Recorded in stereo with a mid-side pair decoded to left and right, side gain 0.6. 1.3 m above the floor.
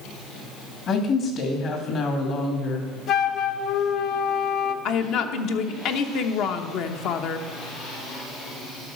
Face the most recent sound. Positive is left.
turn(degrees=60)